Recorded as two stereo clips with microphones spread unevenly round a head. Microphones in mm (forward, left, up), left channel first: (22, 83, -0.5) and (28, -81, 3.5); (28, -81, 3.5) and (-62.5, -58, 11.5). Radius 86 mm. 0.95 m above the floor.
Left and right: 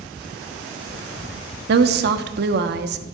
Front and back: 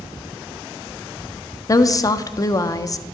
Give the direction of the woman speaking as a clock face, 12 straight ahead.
2 o'clock.